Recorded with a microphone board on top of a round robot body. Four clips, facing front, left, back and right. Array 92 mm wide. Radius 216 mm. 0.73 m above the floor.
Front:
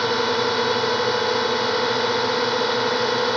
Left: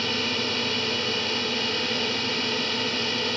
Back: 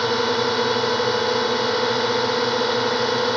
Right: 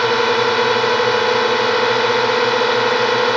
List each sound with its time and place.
0.0 s a drone: 90° right